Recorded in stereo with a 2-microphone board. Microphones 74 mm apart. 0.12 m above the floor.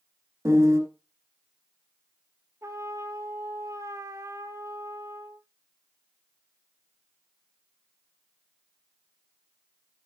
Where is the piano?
35° right (ahead or behind), 2.0 m.